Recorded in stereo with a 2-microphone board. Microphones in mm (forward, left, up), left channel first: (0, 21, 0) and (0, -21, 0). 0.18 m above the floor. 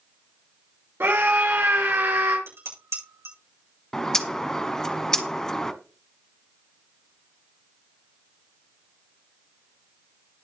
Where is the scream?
70° right (ahead or behind), 4 m.